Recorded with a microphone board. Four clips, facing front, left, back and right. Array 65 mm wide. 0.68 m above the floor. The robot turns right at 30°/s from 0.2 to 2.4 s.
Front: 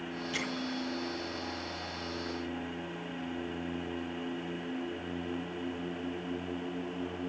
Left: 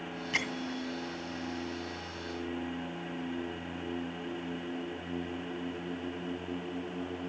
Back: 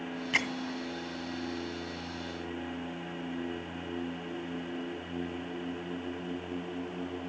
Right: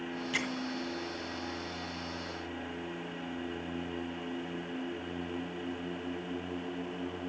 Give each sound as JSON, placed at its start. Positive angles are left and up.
{"t": 0.3, "sound": "a bell", "azimuth_deg": 170, "distance_m": 1.9}